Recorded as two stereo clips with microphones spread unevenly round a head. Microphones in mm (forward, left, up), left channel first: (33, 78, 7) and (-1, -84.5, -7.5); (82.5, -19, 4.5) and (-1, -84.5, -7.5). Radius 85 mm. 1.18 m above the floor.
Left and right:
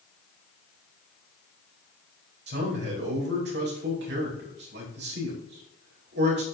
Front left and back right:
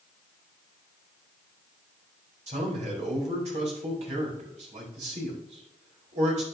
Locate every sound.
2.5 s a man speaking: 135° right, 4.5 m